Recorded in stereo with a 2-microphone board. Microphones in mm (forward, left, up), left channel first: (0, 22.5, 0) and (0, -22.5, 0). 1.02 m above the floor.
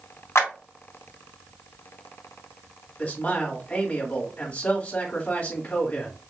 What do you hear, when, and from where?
0.3 s a clap: 85° left, 1.7 m
3.0 s a man speaking: 35° left (ahead or behind), 1.9 m